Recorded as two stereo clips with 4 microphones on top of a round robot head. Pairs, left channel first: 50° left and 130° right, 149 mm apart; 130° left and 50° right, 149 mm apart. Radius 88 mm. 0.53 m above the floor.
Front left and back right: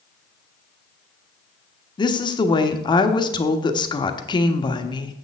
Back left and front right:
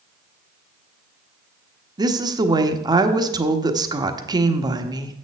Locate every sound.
2.0 s a woman speaking: straight ahead, 1.2 m